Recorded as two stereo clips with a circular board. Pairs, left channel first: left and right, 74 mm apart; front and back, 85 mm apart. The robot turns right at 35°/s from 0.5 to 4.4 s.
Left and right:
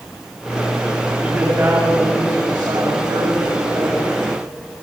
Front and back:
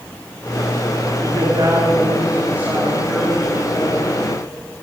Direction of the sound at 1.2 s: 160° right.